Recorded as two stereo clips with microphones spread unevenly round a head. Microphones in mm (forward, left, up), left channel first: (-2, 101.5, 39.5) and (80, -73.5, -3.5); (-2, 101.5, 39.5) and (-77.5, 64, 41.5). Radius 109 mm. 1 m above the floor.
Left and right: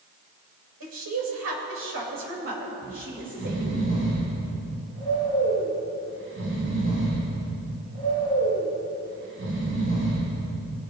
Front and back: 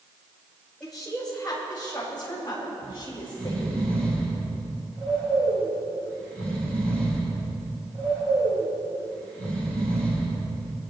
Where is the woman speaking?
60° right, 5 m; by 3.8 s 40° right, 6.5 m.